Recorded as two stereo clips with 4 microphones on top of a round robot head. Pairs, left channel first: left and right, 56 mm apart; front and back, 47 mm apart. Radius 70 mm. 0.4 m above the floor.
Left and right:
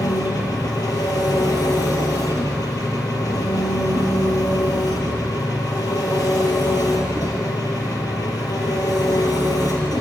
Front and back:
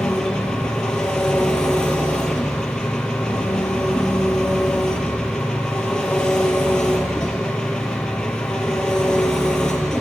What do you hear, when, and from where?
0.0 s an engine running: 75° left, 3 m